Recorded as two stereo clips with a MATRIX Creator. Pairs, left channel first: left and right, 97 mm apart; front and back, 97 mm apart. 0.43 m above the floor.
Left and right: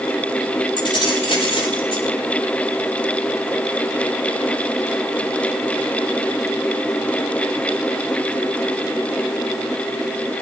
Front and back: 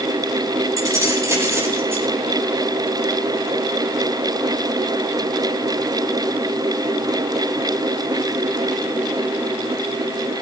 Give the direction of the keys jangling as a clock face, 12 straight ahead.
8 o'clock.